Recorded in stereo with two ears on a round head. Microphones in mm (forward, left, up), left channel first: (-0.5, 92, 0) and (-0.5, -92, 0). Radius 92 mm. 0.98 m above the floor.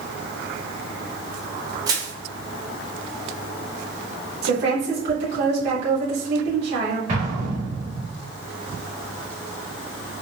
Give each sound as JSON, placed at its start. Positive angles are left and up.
{"t": 1.9, "sound": "crushing", "side_deg": -20, "distance_m": 0.9}
{"t": 4.4, "sound": "a woman speaking", "side_deg": -65, "distance_m": 1.6}
{"t": 7.1, "sound": "an explosion", "side_deg": -40, "distance_m": 1.5}